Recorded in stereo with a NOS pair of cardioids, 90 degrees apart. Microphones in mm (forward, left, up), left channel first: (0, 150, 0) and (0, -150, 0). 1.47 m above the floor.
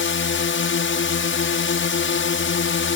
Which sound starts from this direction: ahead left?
A drone, at 0.0 s.